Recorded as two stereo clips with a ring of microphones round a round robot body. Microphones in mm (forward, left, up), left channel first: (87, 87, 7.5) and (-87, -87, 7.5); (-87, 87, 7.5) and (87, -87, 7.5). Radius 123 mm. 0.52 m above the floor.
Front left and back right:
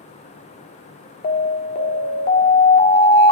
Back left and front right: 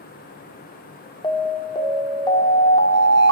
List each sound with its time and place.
1.2 s an alarm: 70° left, 1.8 m